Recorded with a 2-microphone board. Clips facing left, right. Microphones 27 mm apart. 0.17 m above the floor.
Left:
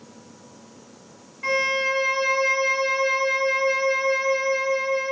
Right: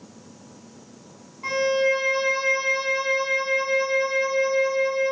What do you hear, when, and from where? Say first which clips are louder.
1.4 s a violin: right 1 dB; 55° left (ahead or behind), 2 m